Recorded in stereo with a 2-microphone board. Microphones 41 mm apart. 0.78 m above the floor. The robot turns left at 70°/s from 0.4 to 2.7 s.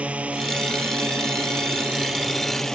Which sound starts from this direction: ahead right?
A drone, at 0.0 s.